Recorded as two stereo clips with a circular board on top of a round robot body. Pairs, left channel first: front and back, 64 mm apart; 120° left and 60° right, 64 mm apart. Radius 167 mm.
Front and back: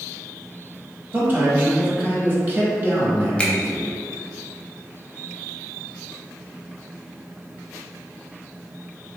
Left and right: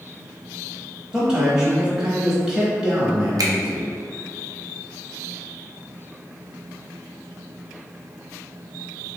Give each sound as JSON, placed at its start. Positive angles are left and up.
{"t": 1.1, "sound": "a man speaking", "azimuth_deg": -135, "distance_m": 1.1}
{"t": 3.4, "sound": "a finger snap", "azimuth_deg": -70, "distance_m": 0.7}